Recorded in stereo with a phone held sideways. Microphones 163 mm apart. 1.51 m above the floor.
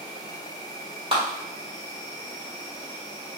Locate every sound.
0.0 s an insect: 25° left (ahead or behind), 1.2 m
1.1 s a clap: 35° right (ahead or behind), 2.5 m